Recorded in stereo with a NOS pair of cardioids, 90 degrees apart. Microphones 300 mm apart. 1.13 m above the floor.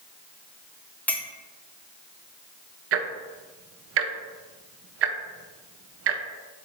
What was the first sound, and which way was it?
A clink, 5° left.